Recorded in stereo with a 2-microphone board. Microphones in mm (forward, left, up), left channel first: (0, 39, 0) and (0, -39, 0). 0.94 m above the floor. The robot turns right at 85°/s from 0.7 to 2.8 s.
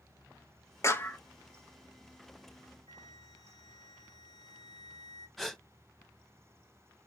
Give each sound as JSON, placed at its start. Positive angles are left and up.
{"t": 0.8, "sound": "a clap", "side_deg": 35, "distance_m": 0.9}
{"t": 2.9, "sound": "a flute", "side_deg": 80, "distance_m": 2.5}
{"t": 5.4, "sound": "a gasp", "side_deg": 0, "distance_m": 1.0}